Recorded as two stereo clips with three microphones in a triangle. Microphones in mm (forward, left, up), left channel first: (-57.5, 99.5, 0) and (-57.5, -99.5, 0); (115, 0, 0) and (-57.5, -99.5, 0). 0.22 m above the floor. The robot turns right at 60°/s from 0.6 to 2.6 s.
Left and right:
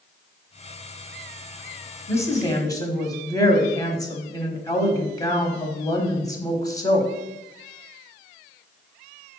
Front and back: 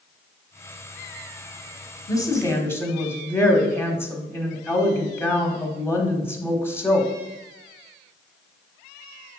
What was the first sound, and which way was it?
A woman speaking, 45° left.